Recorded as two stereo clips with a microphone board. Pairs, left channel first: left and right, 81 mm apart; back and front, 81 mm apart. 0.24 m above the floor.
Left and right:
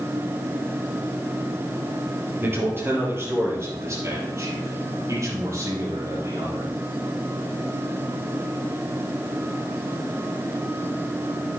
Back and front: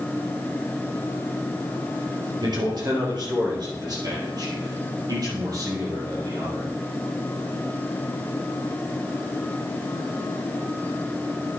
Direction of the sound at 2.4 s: 25° right.